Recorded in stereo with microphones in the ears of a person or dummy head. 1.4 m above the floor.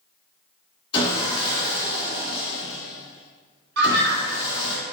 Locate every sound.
0.9 s sawing: 25° left (ahead or behind), 1.8 m
3.8 s a scream: 65° right (ahead or behind), 0.9 m